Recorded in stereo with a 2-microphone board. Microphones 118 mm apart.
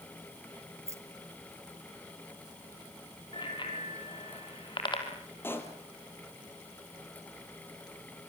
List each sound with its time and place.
0.9 s keys jangling: 25° right (ahead or behind), 1.5 m; by 2.6 s 40° right (ahead or behind), 3.5 m
3.3 s a bicycle bell: 45° left (ahead or behind), 3.5 m
5.4 s a pop: 20° left (ahead or behind), 2.5 m